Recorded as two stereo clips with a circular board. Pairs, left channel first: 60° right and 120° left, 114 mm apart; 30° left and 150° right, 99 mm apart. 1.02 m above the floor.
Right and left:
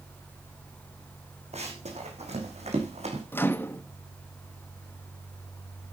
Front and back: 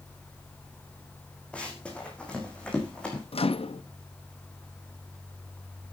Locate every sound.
1.5 s running footsteps: 110° left, 4 m
3.3 s a microwave: 10° left, 0.8 m